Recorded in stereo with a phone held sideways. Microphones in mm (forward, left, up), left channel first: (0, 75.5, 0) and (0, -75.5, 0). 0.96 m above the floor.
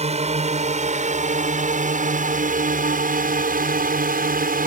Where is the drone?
45° right (ahead or behind); by 4.7 s 70° right (ahead or behind).